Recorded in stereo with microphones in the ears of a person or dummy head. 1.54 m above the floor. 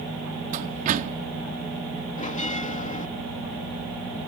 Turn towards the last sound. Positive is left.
turn(degrees=40)  # may be behind; listen again after turning